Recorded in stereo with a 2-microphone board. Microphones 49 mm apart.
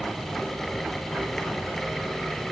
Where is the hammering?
I don't hear hammering.